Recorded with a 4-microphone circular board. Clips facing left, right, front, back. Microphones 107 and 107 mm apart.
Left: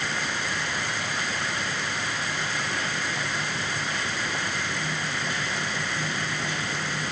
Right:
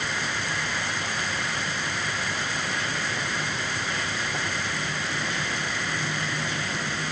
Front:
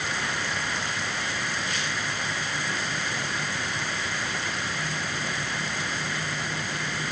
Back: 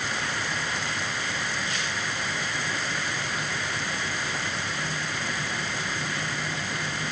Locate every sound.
Only background noise.